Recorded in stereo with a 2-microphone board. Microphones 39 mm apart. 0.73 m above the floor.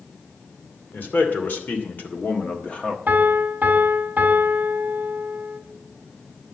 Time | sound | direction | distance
0.9 | a man speaking | 60° left (ahead or behind) | 2.5 m
3.1 | a piano | 50° right (ahead or behind) | 1.4 m